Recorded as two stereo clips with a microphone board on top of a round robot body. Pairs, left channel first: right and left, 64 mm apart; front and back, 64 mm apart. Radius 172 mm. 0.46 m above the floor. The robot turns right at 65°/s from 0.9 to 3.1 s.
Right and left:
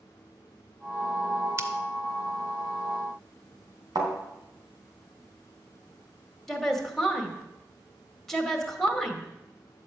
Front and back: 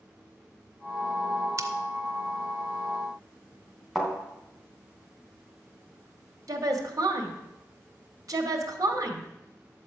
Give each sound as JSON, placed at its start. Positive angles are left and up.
{"t": 1.6, "sound": "scissors", "azimuth_deg": 135, "distance_m": 0.6}
{"t": 4.0, "sound": "a thud", "azimuth_deg": 90, "distance_m": 3.0}
{"t": 6.5, "sound": "a woman speaking", "azimuth_deg": -175, "distance_m": 2.0}